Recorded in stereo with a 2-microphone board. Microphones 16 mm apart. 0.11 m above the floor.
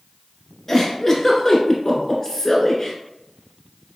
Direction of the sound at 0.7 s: 20° left (ahead or behind).